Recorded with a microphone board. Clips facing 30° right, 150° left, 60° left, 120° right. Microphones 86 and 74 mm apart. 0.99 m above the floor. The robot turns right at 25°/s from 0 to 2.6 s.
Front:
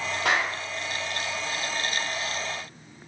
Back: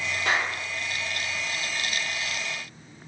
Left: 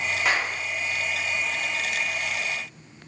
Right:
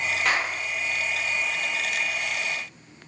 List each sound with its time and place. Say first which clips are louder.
0.2 s a clap: front 1 dB, left 1 dB; 20° right, 1.2 m; by 0.6 s 15° right, 1.2 m